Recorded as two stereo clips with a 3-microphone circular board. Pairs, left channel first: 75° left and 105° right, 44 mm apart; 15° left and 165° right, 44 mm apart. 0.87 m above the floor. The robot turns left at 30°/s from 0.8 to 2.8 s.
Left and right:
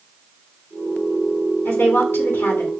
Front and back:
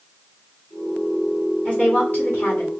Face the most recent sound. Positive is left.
turn(degrees=40)